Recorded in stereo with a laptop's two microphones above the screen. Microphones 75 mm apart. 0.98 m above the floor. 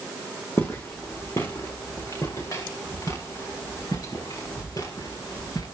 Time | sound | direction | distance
0.6 | footsteps | 35° left (ahead or behind) | 3.5 m